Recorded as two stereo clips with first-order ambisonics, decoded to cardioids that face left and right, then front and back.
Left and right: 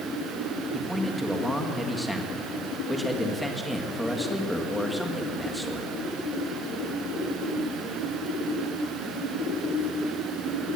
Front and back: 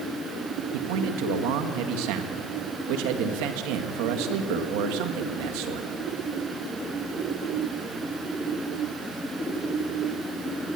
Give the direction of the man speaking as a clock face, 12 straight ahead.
6 o'clock.